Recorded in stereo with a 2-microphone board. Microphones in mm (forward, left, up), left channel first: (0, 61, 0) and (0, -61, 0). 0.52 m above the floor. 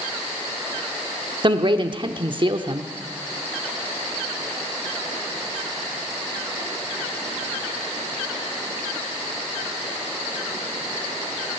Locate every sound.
1.4 s a man speaking: 40° right (ahead or behind), 0.9 m